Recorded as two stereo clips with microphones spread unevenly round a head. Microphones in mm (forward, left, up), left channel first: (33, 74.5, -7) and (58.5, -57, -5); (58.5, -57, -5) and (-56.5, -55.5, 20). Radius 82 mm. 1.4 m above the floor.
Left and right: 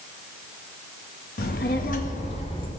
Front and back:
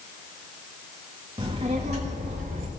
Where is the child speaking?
120° left, 1.4 m; by 2.7 s 165° left, 1.4 m.